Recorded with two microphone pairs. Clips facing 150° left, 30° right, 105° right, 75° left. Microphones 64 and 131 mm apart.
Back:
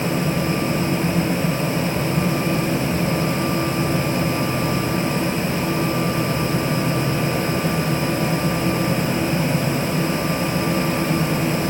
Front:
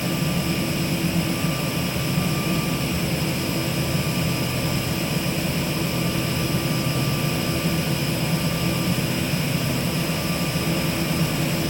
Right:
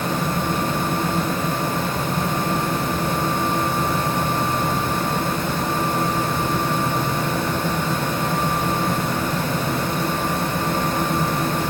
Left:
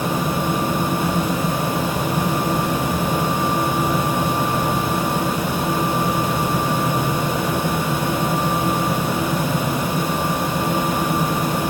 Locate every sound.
Only background noise.